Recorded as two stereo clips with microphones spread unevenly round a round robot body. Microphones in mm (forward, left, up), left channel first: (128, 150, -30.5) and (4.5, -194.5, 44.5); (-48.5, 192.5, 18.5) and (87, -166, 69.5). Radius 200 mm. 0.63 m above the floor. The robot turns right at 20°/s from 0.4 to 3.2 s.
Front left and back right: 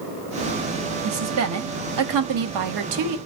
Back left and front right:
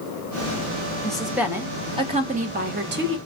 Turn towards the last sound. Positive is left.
turn(degrees=-125)